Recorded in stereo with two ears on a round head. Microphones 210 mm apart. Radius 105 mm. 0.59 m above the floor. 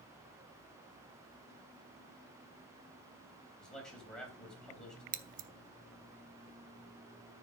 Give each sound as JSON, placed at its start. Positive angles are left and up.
{"t": 3.6, "sound": "a man speaking", "side_deg": 5, "distance_m": 3.5}
{"t": 5.1, "sound": "scissors", "side_deg": -35, "distance_m": 0.6}